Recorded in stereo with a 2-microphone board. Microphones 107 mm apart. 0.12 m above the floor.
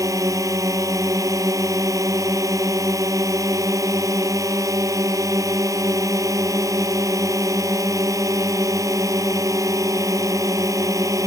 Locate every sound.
0.0 s a drone: 35° right (ahead or behind)